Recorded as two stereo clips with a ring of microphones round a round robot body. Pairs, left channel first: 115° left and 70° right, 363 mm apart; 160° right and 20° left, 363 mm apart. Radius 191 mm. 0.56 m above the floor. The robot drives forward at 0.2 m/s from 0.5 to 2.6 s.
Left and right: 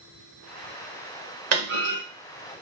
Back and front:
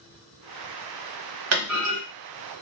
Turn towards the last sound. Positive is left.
turn(degrees=-30)